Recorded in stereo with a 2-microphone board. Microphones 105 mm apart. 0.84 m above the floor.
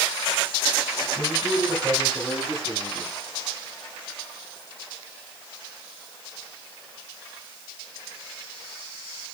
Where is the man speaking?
15° right (ahead or behind), 5.5 m; by 3.1 s 35° right (ahead or behind), 7 m.